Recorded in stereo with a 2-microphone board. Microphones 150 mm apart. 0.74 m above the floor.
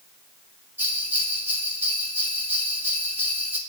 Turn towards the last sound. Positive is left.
turn(degrees=-15)  # may be behind; listen again after turning